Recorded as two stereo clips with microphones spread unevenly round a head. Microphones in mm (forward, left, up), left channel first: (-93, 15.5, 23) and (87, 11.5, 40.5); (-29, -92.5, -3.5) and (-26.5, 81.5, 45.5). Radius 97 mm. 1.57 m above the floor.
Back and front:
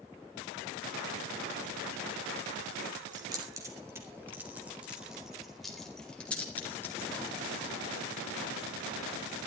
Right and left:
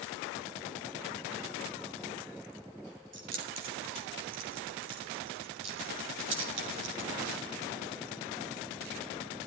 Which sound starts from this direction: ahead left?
Keys jangling, at 3.1 s.